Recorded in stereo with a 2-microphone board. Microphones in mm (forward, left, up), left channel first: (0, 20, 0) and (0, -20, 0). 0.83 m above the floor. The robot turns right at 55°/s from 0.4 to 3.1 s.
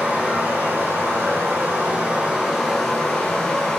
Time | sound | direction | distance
0.0 | running water | 130° right | 1.2 m